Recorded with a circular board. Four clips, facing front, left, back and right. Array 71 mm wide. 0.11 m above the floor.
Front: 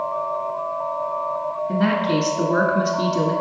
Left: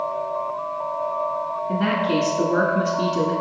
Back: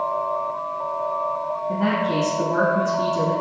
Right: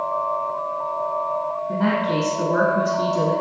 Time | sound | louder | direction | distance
1.7 | a woman speaking | even, front 2 dB | 10° left | 1.3 m